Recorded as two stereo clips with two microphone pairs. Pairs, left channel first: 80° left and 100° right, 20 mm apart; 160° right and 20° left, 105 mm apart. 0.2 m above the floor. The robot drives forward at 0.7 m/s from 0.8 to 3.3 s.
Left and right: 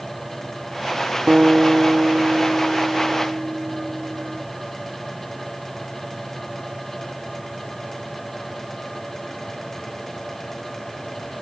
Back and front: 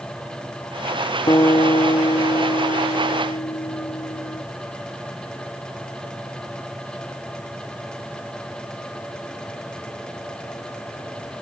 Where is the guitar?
115° right; by 4.4 s 140° right.